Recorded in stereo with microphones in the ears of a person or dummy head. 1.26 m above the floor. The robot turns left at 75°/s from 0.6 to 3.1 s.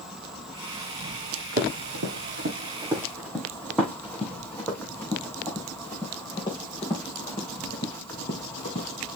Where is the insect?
5° left, 2 m; by 9.2 s 175° left, 2 m.